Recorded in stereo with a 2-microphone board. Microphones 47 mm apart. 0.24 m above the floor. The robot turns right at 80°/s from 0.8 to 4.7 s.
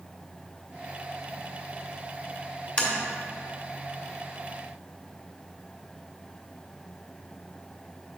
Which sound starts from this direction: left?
Tapping, at 2.8 s.